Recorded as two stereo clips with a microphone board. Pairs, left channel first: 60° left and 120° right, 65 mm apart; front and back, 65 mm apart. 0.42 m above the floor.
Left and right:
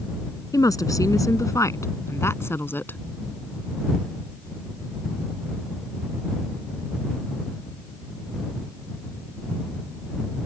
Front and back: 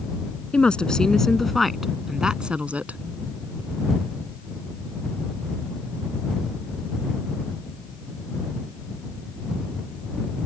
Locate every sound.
0.5 s a woman speaking: 70° left; by 3.0 s 115° left